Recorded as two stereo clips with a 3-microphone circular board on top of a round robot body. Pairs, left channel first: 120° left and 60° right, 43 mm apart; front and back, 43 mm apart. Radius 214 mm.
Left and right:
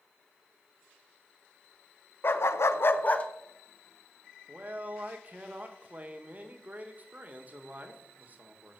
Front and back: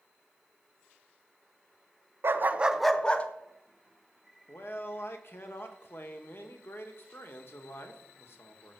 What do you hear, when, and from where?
2.2 s a dog barking: 150° left, 0.9 m; by 3.3 s 60° left, 1.1 m
4.5 s a man speaking: 15° right, 2 m